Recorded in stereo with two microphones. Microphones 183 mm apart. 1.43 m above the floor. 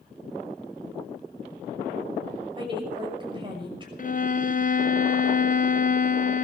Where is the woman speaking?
25° right (ahead or behind), 6 m.